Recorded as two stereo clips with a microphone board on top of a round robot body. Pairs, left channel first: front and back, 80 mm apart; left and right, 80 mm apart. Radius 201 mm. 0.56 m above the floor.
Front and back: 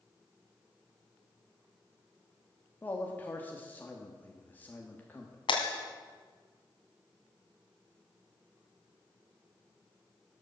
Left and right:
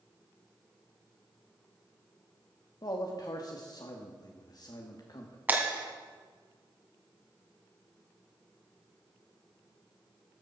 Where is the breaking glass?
20° right, 1.9 m.